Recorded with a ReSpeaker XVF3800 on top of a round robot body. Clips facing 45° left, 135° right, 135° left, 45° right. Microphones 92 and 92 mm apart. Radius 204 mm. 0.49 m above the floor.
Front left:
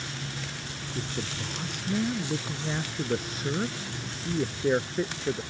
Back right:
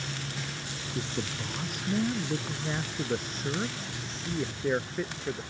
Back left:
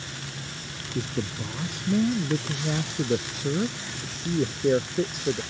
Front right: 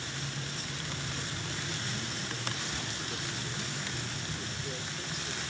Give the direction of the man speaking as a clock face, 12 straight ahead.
7 o'clock.